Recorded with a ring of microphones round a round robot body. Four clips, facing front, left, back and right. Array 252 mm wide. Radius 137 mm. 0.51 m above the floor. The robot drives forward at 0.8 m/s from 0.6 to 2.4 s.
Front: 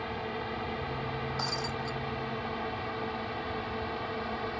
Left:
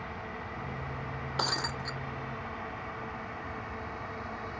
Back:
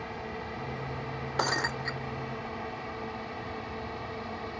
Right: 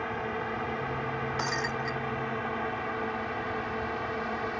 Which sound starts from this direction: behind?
Breaking glass, at 1.4 s.